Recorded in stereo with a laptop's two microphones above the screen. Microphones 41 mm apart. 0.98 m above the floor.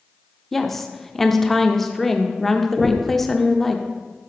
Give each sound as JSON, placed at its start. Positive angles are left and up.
{"t": 0.5, "sound": "a woman speaking", "side_deg": 5, "distance_m": 0.7}
{"t": 2.8, "sound": "knocking", "side_deg": -15, "distance_m": 1.1}